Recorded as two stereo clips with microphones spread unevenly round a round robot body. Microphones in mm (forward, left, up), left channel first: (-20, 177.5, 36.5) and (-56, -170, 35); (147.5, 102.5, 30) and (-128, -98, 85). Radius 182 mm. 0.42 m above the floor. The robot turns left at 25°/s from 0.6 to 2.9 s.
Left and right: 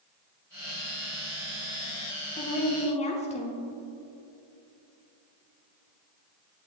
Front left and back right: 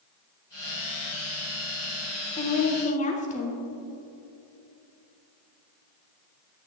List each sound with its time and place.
2.4 s a woman speaking: 45° left, 0.8 m; by 3.6 s 30° left, 0.8 m